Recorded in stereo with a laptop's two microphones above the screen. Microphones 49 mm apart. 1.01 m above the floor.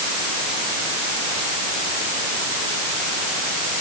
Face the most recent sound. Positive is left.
No sound to turn to.